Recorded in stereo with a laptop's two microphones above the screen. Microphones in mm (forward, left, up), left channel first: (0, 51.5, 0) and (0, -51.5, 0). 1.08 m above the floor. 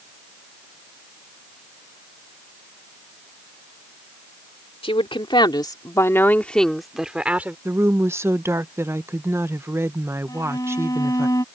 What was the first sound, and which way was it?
A woman speaking, 65° left (ahead or behind).